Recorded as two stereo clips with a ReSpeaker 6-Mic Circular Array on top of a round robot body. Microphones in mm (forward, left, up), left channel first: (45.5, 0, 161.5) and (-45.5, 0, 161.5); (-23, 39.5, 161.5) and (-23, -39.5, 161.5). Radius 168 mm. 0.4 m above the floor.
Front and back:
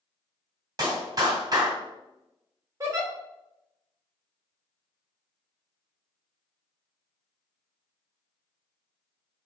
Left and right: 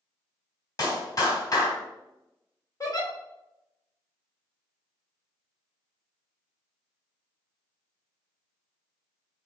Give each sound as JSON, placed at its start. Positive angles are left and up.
{"t": 0.8, "sound": "a clap", "azimuth_deg": 130, "distance_m": 2.5}
{"t": 2.8, "sound": "a giggle", "azimuth_deg": 130, "distance_m": 2.5}